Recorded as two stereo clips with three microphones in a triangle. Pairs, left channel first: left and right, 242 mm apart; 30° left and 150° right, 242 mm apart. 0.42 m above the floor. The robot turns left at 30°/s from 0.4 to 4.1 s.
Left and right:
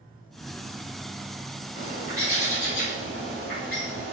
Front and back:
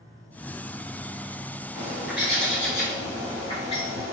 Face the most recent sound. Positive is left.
turn(degrees=60)